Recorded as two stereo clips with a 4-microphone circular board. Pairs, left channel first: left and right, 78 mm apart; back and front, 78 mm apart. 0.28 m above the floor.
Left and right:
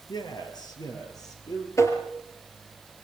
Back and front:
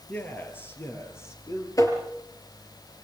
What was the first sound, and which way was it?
A man speaking, 115° left.